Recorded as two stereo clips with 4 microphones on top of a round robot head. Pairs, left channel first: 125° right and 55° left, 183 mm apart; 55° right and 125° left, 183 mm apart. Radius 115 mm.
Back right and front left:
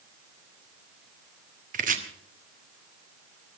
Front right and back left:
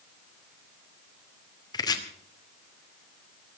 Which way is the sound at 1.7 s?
10° left.